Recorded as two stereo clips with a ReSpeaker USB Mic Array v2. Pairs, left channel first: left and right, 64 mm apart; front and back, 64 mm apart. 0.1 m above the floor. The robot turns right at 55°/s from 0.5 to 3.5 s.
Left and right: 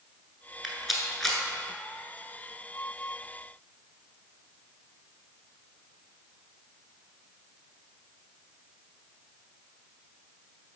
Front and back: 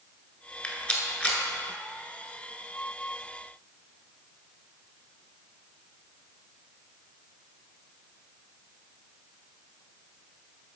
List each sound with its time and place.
0.6 s a rattle: 10° right, 1.1 m; by 1.4 s 30° left, 1.1 m